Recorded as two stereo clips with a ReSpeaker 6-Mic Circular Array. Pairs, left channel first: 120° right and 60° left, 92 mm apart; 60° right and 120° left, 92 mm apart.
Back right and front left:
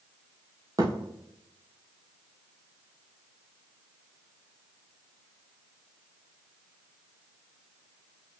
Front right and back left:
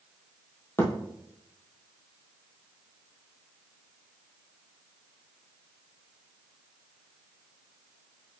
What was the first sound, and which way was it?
A thud, 5° left.